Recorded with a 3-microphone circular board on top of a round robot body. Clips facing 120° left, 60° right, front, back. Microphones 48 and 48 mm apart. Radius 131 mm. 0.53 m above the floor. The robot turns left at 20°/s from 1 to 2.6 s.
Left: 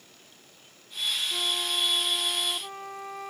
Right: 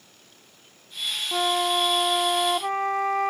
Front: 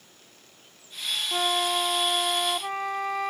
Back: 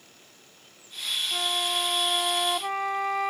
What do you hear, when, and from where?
1.3 s a flute: 70° right; by 3.3 s 95° right